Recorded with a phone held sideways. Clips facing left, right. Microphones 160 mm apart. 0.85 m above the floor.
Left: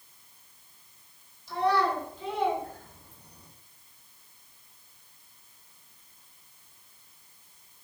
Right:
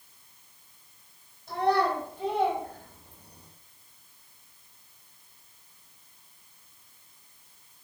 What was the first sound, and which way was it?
A child speaking, 60° right (ahead or behind).